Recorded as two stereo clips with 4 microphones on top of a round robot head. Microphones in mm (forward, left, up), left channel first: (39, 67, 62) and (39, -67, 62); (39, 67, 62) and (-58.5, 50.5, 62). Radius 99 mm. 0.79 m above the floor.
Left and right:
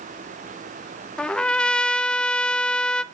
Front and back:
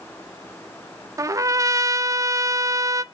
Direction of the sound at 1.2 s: 165° left.